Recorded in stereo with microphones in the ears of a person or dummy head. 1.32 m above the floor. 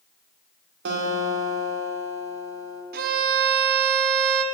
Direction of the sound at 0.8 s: 60° right (ahead or behind).